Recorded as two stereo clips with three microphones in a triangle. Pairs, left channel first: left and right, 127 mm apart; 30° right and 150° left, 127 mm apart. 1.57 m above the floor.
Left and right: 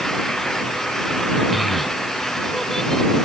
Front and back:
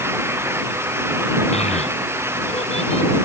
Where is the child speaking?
Straight ahead; by 3.1 s 5° left.